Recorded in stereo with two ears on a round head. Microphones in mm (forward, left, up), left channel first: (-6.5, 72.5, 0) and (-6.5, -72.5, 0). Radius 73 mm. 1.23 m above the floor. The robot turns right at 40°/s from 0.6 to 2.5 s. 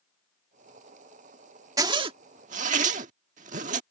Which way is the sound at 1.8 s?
25° right (ahead or behind).